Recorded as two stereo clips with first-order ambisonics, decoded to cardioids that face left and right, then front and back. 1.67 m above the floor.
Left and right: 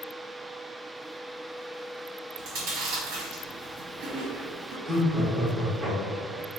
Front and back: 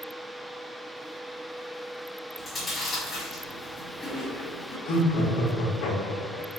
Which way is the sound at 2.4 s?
85° right.